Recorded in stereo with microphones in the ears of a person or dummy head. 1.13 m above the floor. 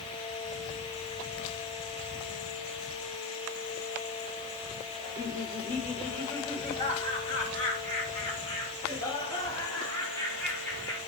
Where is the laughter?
35° left (ahead or behind), 6 m; by 11.0 s 10° left (ahead or behind), 3.5 m.